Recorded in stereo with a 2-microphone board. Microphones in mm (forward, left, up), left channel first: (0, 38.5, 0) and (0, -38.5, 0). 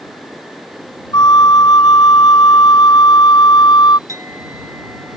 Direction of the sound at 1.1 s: 65° left (ahead or behind).